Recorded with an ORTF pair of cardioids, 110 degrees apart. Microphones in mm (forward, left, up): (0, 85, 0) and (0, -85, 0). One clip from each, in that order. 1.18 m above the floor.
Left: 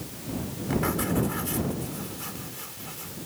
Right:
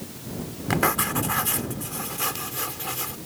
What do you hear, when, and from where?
0.7 s writing: 70° right